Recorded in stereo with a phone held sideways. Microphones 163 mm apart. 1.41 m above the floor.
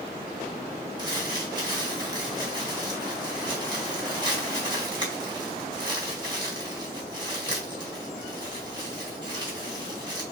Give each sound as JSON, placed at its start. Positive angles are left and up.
{"t": 1.0, "sound": "crumpling", "side_deg": -25, "distance_m": 2.0}